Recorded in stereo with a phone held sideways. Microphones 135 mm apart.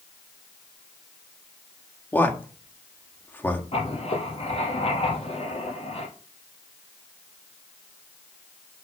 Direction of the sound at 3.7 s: 45° left (ahead or behind).